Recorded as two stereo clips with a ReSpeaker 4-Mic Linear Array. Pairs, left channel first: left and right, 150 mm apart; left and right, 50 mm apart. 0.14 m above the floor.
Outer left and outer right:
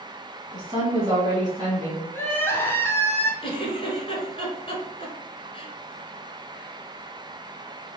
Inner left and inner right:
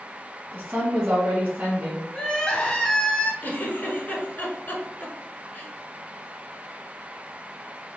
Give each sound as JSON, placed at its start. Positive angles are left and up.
{"t": 0.5, "sound": "a woman speaking", "side_deg": -30, "distance_m": 1.7}
{"t": 2.1, "sound": "crying", "side_deg": 15, "distance_m": 0.7}
{"t": 3.4, "sound": "a giggle", "side_deg": 35, "distance_m": 1.0}